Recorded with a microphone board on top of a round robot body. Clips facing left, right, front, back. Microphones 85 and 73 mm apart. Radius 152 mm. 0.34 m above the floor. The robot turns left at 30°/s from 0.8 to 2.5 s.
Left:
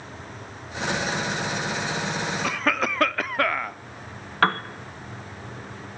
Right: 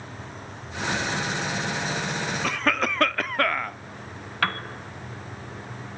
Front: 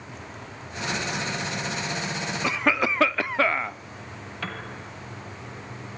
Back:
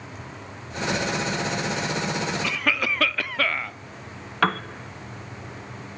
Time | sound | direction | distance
2.4 | a cough | 10° left | 0.9 m
4.4 | a piano | 145° left | 1.1 m